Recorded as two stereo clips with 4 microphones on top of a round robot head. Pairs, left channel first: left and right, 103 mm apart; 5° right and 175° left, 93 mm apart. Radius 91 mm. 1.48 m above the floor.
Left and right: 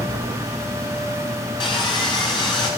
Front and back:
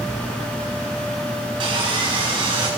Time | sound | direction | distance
1.6 | sawing | 135° left | 7 m